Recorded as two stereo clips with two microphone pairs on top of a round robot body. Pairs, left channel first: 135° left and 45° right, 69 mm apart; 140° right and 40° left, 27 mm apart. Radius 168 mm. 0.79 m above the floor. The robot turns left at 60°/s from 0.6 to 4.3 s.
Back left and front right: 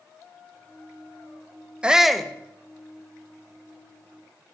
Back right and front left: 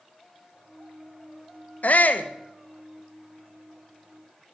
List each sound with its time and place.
1.8 s a shout: 120° right, 1.1 m; by 2.3 s 150° right, 1.1 m